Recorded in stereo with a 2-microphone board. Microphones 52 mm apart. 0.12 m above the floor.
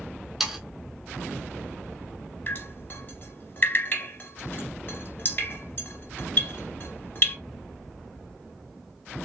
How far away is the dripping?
About 1.5 m.